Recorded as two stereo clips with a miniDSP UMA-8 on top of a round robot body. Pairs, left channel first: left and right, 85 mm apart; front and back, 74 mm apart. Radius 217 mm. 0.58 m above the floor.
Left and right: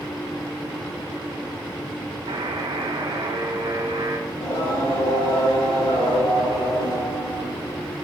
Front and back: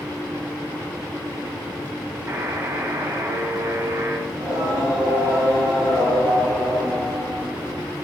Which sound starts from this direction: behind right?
A buzzer, at 2.3 s.